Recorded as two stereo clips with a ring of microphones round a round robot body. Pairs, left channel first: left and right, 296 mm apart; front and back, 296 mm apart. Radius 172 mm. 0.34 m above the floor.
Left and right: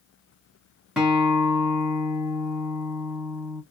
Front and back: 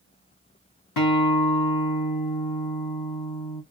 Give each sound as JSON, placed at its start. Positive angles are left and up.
{"t": 1.0, "sound": "a guitar", "azimuth_deg": 0, "distance_m": 2.0}